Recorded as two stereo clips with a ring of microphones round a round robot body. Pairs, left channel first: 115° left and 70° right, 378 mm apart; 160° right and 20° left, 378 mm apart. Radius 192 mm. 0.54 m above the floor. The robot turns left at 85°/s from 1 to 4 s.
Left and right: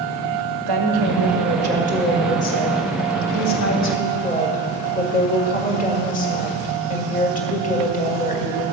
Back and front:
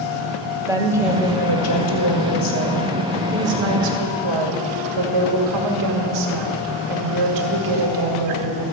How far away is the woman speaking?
About 1.6 m.